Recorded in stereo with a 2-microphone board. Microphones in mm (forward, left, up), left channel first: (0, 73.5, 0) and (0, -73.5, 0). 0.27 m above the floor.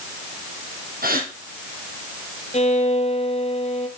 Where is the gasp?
80° right, 2.5 m.